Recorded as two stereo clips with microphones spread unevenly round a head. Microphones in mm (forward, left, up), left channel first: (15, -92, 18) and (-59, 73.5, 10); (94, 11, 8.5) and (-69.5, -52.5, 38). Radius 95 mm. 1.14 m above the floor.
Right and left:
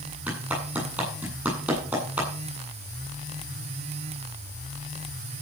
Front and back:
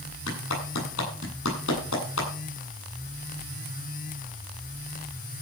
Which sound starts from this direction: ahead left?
A clap, at 0.3 s.